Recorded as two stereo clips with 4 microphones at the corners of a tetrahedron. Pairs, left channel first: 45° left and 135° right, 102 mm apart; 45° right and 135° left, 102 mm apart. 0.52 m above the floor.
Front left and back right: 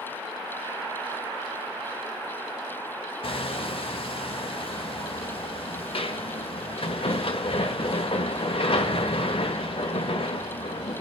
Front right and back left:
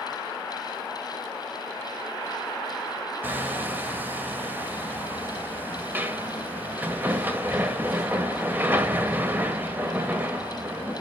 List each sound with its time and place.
3.2 s hammering: 65° left, 1.2 m